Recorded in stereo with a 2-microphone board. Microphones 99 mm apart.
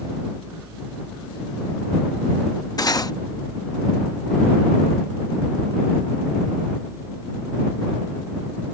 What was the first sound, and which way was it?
Cutlery clinking, 40° left (ahead or behind).